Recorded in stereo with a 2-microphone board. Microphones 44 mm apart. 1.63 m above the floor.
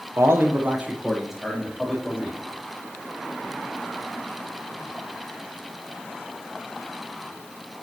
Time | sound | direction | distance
0.2 | a man speaking | 75° right (ahead or behind) | 1.0 m